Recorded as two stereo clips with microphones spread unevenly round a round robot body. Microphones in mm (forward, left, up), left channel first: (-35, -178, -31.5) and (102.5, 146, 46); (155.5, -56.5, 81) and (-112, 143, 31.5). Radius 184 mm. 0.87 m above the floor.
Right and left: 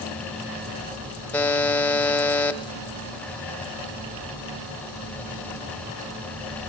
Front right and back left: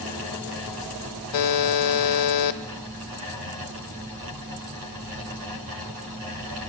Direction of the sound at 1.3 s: 20° right.